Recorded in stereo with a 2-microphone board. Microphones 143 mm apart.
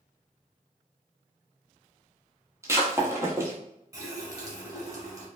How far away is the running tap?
About 0.9 m.